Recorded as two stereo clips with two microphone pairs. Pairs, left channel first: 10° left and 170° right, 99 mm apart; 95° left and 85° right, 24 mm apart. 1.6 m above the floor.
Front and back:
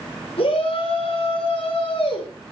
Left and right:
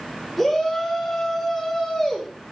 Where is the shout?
Straight ahead, 5.5 m.